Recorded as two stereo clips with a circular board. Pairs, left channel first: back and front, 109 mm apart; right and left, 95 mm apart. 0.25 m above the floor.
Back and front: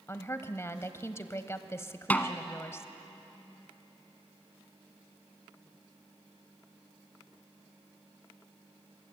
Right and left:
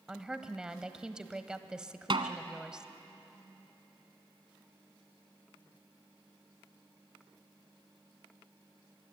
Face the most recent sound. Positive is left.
turn(degrees=105)